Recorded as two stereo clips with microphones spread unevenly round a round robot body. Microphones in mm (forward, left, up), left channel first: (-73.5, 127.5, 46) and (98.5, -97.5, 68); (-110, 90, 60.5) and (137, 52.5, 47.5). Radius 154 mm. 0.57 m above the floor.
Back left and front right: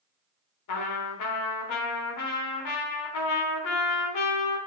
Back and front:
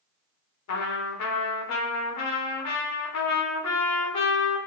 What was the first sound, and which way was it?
A trumpet, 150° left.